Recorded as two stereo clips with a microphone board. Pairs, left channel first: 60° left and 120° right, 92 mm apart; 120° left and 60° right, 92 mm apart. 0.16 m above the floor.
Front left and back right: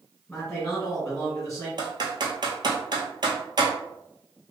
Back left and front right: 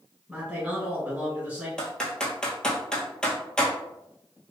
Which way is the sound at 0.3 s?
25° right.